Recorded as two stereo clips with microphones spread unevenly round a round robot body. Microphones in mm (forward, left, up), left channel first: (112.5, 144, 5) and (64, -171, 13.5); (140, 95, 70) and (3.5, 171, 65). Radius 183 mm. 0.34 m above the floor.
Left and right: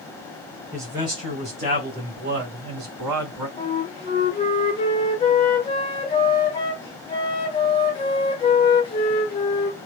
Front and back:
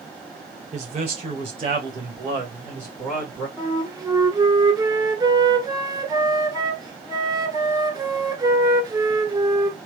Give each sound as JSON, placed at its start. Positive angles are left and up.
{"t": 0.7, "sound": "a man speaking", "azimuth_deg": 180, "distance_m": 2.0}
{"t": 3.6, "sound": "a flute", "azimuth_deg": 125, "distance_m": 1.4}